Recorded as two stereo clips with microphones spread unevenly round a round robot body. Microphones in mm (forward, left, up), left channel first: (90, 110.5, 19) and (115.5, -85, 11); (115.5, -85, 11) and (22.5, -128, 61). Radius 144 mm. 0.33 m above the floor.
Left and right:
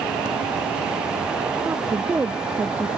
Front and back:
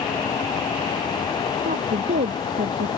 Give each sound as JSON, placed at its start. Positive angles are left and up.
{"t": 1.6, "sound": "a woman speaking", "azimuth_deg": -165}